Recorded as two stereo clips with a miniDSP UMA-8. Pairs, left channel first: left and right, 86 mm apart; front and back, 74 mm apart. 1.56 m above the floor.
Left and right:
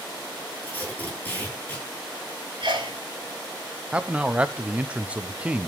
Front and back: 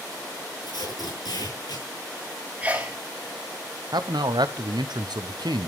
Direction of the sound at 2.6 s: 110° right.